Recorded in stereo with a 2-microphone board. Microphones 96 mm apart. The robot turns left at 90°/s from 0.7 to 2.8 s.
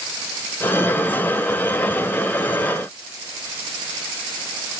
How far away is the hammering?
No hammering in this recording.